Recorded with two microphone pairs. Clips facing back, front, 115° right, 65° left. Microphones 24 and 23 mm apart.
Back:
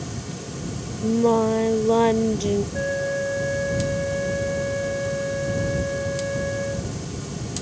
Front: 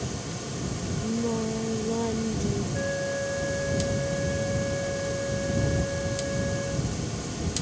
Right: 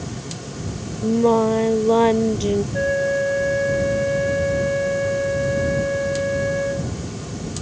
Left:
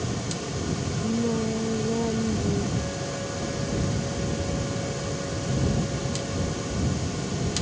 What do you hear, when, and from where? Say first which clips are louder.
1.0 s singing: back 10 dB, right 11 dB; 145° right
2.7 s a flute: back 4 dB, right 11 dB; 110° right